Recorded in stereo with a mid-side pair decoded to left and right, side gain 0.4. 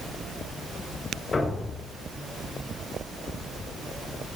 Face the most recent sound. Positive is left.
turn(degrees=35)